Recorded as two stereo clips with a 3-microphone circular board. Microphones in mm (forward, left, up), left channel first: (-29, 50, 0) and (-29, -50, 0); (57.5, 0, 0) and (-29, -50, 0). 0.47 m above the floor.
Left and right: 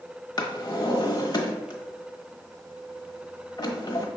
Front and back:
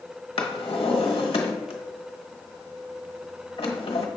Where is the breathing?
I don't hear breathing.